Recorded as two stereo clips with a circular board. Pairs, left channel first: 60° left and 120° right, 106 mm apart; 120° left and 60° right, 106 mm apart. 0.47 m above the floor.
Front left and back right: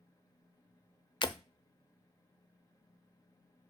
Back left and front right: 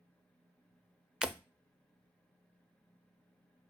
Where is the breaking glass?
25° left, 0.6 m.